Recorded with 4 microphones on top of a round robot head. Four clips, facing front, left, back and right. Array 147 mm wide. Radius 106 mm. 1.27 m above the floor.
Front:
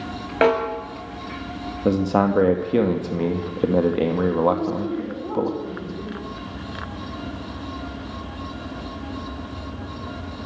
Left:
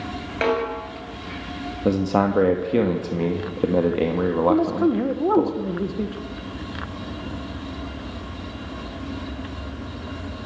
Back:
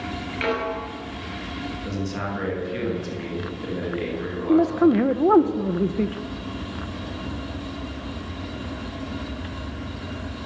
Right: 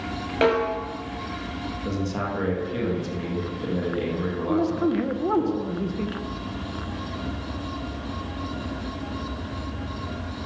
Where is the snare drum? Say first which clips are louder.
Right 1 dB, front 8 dB; 15° right, 6 m.